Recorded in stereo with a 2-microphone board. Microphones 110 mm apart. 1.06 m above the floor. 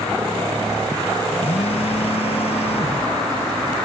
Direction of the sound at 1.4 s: 65° left (ahead or behind).